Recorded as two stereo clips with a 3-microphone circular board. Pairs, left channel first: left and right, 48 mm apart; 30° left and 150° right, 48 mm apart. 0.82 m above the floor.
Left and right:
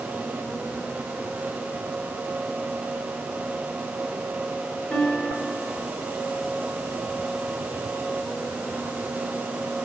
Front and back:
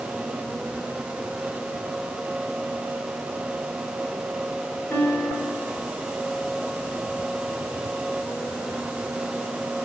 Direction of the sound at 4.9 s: 30° left.